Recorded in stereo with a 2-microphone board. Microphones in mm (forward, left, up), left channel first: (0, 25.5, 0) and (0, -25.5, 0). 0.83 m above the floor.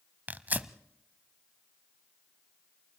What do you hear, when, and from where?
0.3 s tearing paper: 35° right (ahead or behind), 0.8 m